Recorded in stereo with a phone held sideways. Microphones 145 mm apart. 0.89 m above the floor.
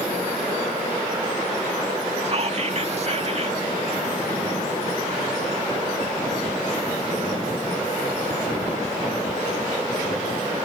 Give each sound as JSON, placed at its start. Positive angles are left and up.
{"t": 2.2, "sound": "whispering", "side_deg": -45}